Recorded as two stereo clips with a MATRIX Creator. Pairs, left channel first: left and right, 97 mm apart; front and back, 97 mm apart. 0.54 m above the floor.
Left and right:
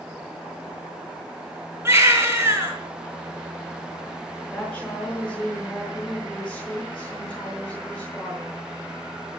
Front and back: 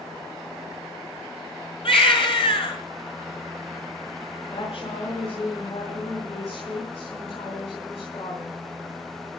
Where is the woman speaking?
15° left, 7.5 m.